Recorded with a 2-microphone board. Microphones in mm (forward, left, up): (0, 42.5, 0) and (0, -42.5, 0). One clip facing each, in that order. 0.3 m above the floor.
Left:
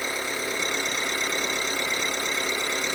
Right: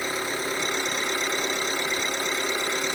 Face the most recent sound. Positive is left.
turn(degrees=-40)  # may be behind; listen again after turning